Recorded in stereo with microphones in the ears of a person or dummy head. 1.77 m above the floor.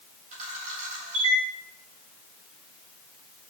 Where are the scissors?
I don't hear scissors.